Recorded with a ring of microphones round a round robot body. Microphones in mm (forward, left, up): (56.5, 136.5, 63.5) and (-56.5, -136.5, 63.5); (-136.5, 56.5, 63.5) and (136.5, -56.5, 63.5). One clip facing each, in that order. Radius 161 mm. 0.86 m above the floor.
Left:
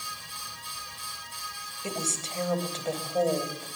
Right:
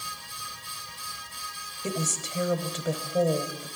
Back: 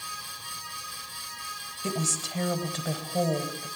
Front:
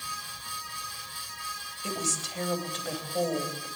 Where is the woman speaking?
170° left, 4 m.